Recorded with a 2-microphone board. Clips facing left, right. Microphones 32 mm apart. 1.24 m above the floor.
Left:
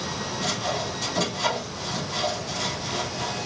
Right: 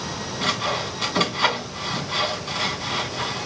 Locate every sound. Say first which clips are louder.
0.4 s sawing: right 5 dB; 55° right (ahead or behind), 1.7 m